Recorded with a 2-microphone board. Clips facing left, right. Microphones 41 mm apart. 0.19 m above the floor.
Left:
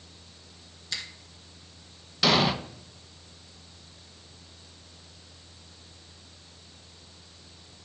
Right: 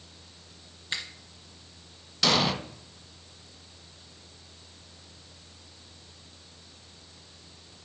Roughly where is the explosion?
Centre.